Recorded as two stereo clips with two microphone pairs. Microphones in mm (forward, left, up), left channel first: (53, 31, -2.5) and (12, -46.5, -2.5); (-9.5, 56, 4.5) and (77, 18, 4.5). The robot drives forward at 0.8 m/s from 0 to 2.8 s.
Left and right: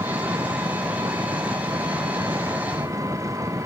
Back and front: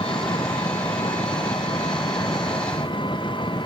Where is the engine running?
170° right; by 3.7 s 175° right.